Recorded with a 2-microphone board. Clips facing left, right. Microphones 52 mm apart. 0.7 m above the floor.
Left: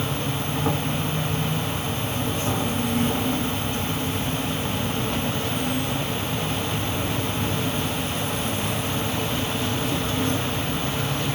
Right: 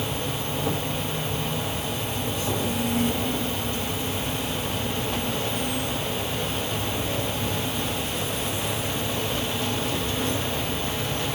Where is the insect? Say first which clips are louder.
Left 2 dB; 45° left (ahead or behind), 0.8 m.